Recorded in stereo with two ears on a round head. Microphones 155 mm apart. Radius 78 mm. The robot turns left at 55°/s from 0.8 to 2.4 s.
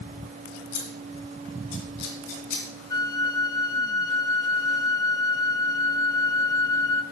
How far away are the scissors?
About 2.5 m.